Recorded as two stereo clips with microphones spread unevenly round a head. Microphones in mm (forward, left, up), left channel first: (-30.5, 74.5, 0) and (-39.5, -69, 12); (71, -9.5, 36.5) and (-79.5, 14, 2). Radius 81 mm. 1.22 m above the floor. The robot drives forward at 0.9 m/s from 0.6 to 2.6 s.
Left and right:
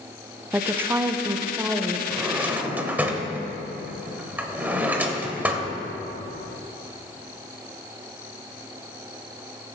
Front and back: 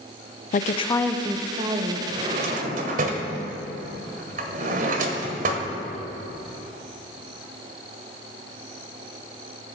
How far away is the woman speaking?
About 0.6 m.